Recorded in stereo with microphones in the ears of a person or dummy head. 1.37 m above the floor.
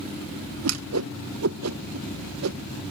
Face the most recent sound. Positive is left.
turn(degrees=-85)